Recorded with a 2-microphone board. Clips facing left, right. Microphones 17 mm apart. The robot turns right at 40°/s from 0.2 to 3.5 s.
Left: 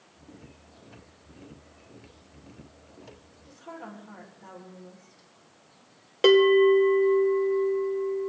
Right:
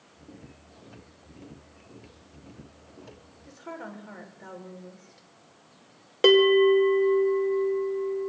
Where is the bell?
5° left (ahead or behind), 1.3 m.